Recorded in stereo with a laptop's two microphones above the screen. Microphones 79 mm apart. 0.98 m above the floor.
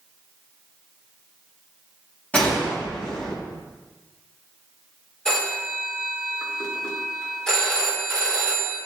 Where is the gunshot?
20° left (ahead or behind), 2 m.